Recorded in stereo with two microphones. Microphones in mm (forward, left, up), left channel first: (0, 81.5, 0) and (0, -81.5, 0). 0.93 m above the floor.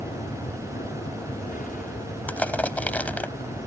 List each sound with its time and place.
0.0 s an aircraft: 55° left (ahead or behind)
2.3 s crushing: 10° left (ahead or behind)